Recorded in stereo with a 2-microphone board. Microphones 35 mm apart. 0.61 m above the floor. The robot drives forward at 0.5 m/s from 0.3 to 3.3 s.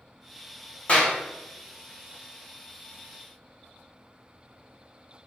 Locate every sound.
0.9 s a clap: 40° left (ahead or behind), 1.0 m